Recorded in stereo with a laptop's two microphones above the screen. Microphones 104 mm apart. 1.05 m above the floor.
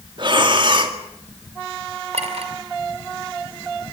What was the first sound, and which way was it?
Breathing, 50° right (ahead or behind).